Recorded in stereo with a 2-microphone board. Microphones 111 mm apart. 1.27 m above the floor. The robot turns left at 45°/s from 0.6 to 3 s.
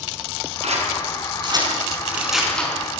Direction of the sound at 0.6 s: 75° right (ahead or behind).